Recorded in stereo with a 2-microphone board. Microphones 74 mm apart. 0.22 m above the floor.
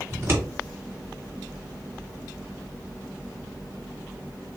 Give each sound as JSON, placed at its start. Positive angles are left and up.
{"t": 0.1, "sound": "scissors", "side_deg": -35, "distance_m": 1.7}